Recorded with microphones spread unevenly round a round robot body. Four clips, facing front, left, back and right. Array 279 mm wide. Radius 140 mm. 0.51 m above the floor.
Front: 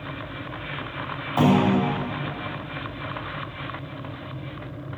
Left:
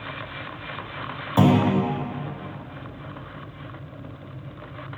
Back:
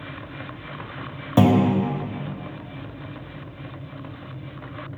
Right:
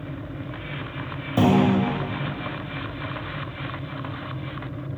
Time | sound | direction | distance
1.4 | a clunk | 170° right | 0.8 m